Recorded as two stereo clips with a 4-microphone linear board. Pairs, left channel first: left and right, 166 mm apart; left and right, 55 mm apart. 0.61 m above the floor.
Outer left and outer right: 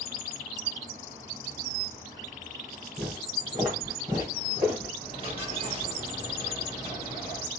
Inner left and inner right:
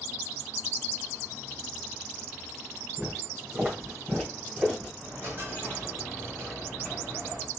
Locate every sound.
3.0 s footsteps: 25° right (ahead or behind), 3 m; by 4.9 s 15° right (ahead or behind), 4 m
5.0 s a dropped coin: 35° right (ahead or behind), 3 m